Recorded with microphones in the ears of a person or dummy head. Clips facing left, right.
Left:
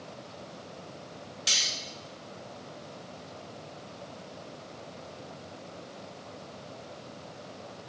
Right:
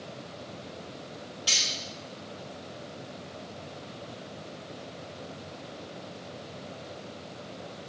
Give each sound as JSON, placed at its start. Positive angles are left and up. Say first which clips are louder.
{"t": 1.5, "sound": "cutlery clinking", "louder": "right 2 dB", "side_deg": 30, "distance_m": 1.7}